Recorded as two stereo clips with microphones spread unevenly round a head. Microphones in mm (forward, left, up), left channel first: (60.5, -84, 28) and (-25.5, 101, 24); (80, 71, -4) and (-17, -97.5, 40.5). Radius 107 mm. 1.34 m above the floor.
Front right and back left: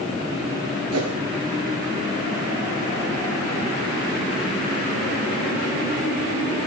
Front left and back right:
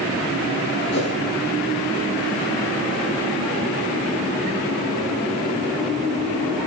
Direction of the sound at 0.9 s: 105° left.